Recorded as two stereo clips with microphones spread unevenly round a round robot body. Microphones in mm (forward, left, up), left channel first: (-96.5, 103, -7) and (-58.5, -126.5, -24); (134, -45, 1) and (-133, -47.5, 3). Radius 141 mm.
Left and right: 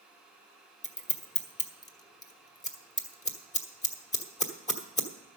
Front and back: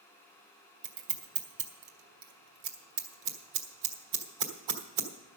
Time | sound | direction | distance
0.8 | scissors | 160° left | 1.4 m